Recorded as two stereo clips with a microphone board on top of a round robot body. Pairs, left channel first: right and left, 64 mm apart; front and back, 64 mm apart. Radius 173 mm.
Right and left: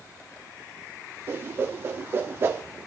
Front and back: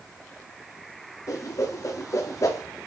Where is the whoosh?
35° left, 1.1 m.